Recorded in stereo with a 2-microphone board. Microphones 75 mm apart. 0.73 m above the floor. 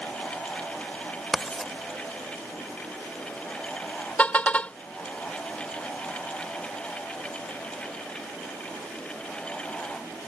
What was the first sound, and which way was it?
Writing, 5° left (ahead or behind).